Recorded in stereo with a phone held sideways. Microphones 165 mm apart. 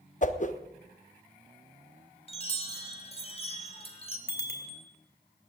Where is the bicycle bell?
80° left, 3 m.